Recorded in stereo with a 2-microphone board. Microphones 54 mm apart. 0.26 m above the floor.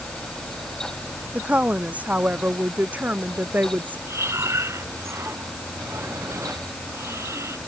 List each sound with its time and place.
1.3 s a woman speaking: 30° right (ahead or behind); by 4.0 s 35° right (ahead or behind)
4.1 s breathing: 65° right (ahead or behind)